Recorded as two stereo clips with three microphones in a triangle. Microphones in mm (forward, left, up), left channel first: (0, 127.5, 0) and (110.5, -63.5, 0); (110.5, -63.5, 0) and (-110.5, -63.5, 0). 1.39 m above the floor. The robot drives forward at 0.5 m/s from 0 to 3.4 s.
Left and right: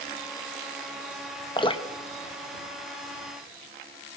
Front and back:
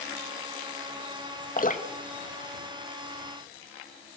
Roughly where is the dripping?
Ahead left.